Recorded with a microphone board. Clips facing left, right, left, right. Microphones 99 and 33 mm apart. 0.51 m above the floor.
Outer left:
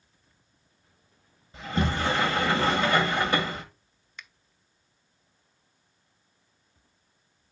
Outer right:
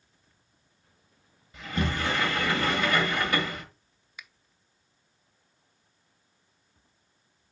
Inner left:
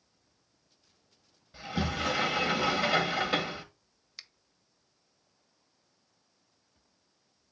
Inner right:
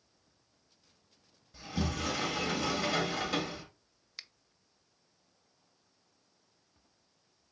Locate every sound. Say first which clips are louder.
1.5 s a sliding door: outer left 2 dB, inner left 3 dB; 30° left (ahead or behind), 1.7 m
4.2 s a finger snap: outer left 1 dB, inner right 1 dB; 10° right (ahead or behind), 0.6 m